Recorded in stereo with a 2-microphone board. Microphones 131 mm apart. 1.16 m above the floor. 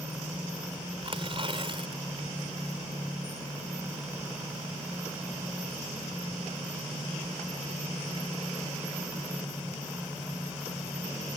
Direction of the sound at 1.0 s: 40° right (ahead or behind).